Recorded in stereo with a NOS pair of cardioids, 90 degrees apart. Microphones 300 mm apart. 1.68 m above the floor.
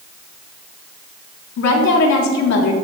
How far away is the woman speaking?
About 3.5 m.